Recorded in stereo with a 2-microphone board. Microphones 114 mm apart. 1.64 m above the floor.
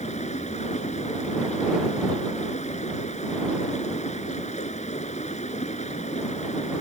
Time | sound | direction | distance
0.0 | running water | 85° left | ?